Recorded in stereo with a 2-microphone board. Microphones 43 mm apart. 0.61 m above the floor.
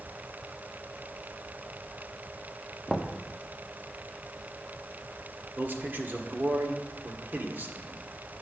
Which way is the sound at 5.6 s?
50° right (ahead or behind).